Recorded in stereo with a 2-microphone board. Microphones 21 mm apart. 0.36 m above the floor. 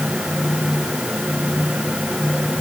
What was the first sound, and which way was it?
Only background noise.